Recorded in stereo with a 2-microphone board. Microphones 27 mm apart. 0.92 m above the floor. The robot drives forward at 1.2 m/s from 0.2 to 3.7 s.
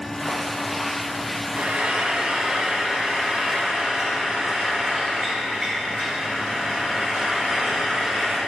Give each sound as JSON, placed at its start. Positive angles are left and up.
{"t": 1.6, "sound": "frying", "side_deg": -45, "distance_m": 1.2}